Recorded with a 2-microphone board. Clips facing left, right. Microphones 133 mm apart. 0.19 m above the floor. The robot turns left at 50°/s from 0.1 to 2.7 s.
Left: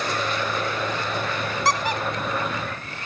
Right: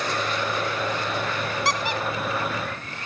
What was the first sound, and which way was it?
A squeak, 40° left (ahead or behind).